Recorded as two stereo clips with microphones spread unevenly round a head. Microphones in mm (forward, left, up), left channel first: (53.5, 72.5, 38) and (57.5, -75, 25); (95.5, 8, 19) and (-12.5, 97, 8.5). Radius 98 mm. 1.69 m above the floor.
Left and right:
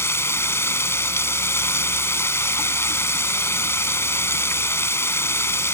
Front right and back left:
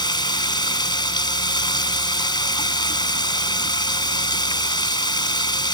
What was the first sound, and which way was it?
Running water, 20° left.